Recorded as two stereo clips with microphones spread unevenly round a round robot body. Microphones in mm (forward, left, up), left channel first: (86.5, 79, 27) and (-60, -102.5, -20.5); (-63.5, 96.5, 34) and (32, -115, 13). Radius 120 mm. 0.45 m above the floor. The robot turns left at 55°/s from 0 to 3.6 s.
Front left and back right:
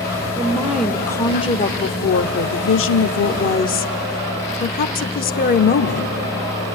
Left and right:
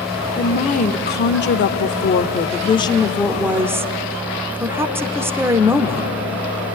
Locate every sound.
0.4 s a woman speaking: straight behind, 1.0 m; by 6.1 s 5° left, 1.0 m